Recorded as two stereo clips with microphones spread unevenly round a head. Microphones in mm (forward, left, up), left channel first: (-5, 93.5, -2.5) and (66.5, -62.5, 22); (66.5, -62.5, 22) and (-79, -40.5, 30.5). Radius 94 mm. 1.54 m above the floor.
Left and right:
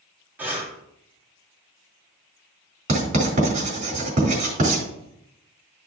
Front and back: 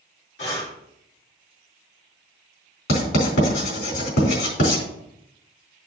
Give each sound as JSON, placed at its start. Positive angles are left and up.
{"t": 0.4, "sound": "breathing", "azimuth_deg": 15, "distance_m": 3.0}
{"t": 2.9, "sound": "writing", "azimuth_deg": -20, "distance_m": 4.0}